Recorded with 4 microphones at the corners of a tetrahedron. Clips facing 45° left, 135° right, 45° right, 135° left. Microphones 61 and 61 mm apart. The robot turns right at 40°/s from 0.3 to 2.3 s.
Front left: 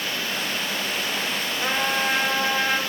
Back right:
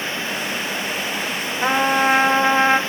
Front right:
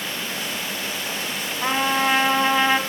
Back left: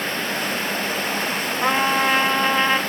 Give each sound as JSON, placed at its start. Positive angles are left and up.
{"t": 1.6, "sound": "a trumpet", "azimuth_deg": -160, "distance_m": 1.1}